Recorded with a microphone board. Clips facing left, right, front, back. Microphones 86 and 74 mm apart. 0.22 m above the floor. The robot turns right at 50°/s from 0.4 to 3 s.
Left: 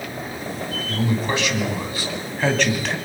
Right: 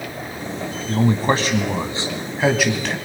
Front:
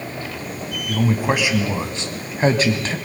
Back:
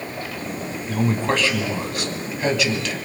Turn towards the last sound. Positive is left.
turn(degrees=10)